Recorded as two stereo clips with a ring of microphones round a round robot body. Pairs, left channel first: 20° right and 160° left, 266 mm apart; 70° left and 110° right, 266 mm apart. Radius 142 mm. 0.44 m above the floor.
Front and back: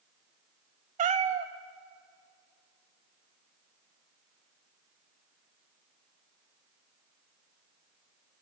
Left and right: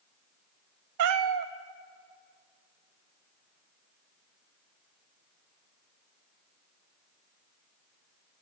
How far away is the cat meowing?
About 0.5 m.